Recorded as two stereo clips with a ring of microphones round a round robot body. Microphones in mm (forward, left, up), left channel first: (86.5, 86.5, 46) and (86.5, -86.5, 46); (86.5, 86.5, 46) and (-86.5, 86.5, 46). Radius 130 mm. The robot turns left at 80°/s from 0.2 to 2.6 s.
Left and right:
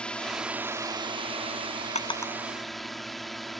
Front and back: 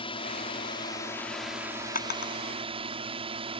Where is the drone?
10° left; by 3.6 s straight behind.